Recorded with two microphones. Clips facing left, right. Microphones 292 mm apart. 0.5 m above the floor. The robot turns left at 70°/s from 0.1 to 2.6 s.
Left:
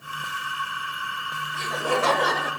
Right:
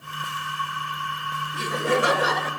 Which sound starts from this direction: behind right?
Laughter, at 1.5 s.